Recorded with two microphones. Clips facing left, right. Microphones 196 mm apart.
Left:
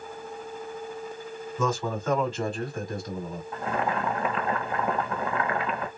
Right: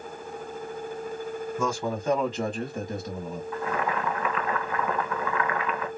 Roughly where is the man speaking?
Centre.